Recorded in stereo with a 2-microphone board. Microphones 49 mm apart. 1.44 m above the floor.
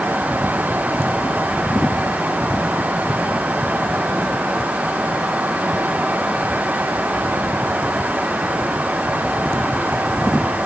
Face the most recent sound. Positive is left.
No sound to turn to.